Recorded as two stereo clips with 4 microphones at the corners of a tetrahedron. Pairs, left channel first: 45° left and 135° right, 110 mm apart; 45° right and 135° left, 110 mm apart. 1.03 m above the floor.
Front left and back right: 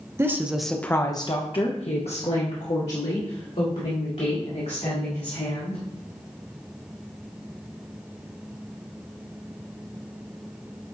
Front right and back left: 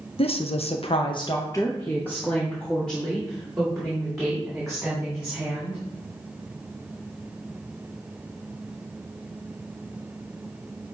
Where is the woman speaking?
70° right, 0.8 m; by 5.8 s 50° left, 3.5 m.